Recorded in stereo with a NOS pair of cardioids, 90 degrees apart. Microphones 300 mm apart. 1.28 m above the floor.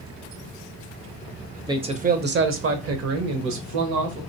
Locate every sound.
1.7 s a man speaking: 15° right, 0.8 m; by 4.2 s 75° right, 1.5 m